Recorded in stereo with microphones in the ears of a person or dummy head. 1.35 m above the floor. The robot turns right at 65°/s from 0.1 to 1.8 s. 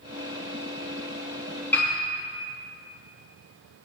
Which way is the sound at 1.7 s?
5° left (ahead or behind).